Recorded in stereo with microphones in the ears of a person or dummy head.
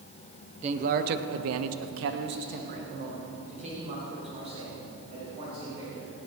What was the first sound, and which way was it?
A man speaking, 35° right (ahead or behind).